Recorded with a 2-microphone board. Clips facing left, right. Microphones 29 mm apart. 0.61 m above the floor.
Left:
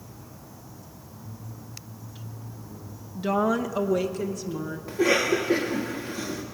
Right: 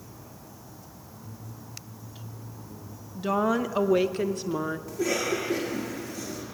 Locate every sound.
3.1 s a woman speaking: 5° left (ahead or behind), 0.6 m; by 4.8 s 55° right (ahead or behind), 1.0 m
4.9 s a cough: 30° left (ahead or behind), 1.4 m